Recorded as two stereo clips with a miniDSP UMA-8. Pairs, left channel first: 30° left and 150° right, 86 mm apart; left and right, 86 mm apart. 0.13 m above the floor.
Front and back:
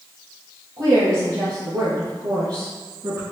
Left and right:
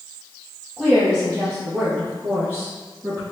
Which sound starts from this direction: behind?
A woman speaking, at 0.8 s.